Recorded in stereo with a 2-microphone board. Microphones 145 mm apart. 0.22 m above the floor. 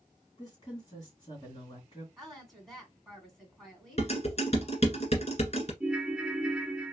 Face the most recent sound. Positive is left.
turn(degrees=-5)  # may be behind; listen again after turning